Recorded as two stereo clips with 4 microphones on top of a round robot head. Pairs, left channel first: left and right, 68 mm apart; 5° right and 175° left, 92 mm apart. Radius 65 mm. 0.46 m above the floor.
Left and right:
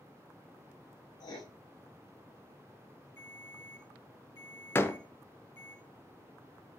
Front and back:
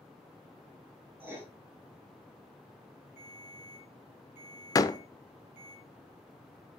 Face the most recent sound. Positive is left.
turn(degrees=40)